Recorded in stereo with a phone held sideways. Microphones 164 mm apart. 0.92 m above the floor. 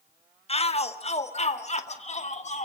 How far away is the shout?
About 1.4 m.